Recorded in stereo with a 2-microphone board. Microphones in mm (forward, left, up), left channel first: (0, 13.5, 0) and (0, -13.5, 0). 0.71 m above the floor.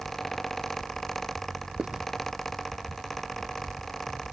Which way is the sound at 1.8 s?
35° right (ahead or behind).